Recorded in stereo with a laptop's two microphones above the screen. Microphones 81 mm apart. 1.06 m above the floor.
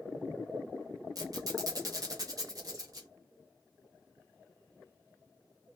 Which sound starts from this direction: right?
A squeak, at 1.1 s.